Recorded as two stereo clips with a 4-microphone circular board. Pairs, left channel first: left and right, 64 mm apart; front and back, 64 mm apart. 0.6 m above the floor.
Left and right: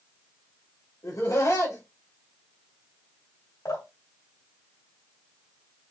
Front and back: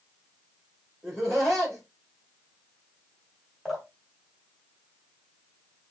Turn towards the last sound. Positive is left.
turn(degrees=80)